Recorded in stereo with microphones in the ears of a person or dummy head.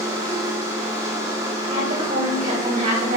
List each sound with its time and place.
0.0 s a machine running: 15° right (ahead or behind), 1.3 m
1.7 s a woman speaking: 50° right (ahead or behind), 2.5 m